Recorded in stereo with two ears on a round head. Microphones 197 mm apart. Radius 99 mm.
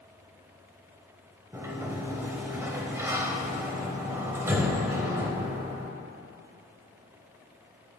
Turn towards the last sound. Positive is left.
turn(degrees=-15)  # may be behind; listen again after turning